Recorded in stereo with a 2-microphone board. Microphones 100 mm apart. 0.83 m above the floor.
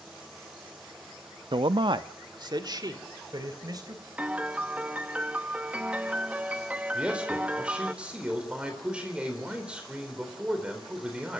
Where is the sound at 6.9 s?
10° right (ahead or behind), 4 m.